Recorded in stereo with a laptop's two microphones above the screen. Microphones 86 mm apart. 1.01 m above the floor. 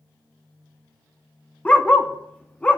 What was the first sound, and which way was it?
A dog barking, 15° left (ahead or behind).